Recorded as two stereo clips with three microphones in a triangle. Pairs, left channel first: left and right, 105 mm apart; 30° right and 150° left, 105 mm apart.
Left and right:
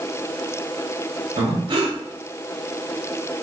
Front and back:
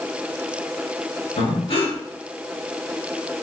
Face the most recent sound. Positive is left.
turn(degrees=-55)